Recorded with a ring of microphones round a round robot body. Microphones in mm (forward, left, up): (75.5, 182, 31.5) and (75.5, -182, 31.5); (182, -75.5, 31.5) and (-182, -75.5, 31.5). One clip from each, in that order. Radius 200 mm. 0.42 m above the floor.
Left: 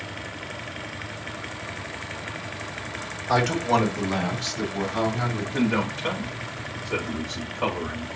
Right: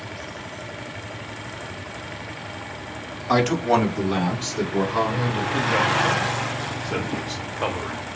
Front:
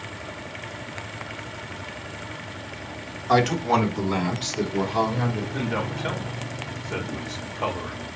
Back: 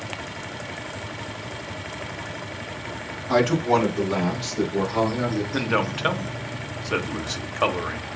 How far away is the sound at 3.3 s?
About 2 m.